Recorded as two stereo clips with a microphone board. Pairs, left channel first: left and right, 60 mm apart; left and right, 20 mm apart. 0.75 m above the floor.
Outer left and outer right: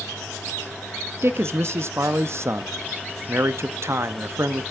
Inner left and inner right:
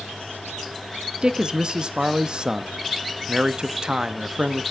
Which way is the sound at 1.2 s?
45° right (ahead or behind).